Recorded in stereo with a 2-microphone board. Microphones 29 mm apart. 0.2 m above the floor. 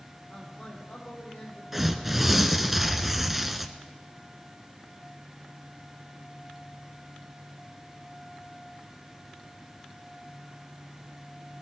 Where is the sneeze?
I don't hear a sneeze.